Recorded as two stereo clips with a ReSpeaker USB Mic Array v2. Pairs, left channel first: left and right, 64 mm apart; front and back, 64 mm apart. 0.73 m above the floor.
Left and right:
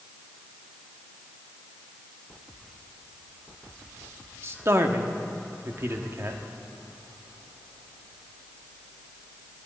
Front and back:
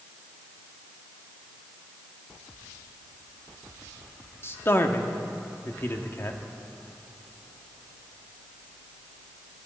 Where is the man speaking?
50° right, 1.1 m.